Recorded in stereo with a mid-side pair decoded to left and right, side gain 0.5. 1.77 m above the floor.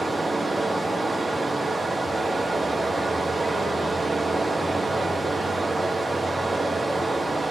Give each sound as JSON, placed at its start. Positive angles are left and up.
{"t": 0.0, "sound": "running water", "azimuth_deg": -10, "distance_m": 1.0}